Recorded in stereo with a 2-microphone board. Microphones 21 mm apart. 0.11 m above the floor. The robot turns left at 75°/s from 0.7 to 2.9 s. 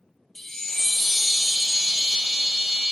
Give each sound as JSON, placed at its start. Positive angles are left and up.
{"t": 0.3, "sound": "a chime", "azimuth_deg": 30, "distance_m": 0.7}